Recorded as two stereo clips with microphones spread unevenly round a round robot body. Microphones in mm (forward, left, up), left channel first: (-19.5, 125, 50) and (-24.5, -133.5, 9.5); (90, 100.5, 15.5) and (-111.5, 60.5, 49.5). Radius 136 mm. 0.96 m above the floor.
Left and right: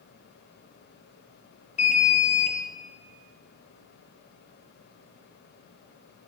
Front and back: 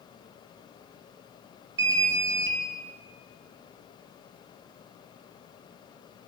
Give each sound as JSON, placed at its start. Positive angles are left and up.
{"t": 1.8, "sound": "an alarm", "azimuth_deg": 155, "distance_m": 1.3}